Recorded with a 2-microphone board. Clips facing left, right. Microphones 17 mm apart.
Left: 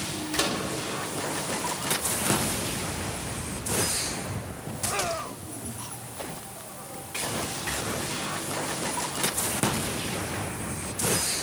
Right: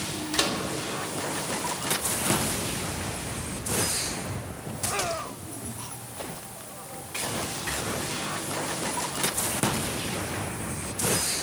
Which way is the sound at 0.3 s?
20° right (ahead or behind).